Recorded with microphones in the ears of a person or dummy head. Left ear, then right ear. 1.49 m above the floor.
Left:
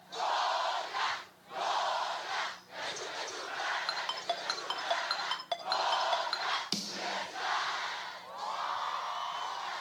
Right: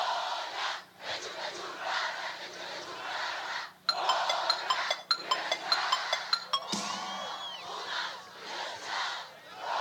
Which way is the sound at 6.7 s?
25° left (ahead or behind).